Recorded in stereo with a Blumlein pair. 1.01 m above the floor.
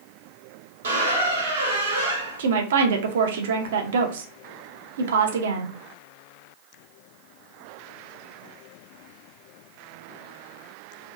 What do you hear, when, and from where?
0.8 s a squeak: 65° right, 1.0 m
2.4 s a woman speaking: 60° right, 0.5 m